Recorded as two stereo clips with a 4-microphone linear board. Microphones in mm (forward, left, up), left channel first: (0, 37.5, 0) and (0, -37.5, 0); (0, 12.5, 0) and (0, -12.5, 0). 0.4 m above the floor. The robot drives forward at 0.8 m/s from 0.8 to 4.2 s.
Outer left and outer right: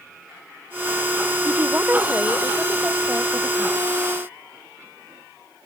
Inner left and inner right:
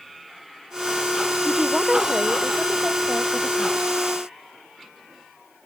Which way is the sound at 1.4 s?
25° right (ahead or behind).